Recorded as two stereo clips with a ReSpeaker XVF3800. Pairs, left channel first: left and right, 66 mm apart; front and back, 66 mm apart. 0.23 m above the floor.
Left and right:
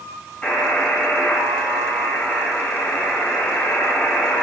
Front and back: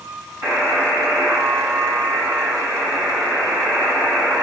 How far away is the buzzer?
About 1.8 m.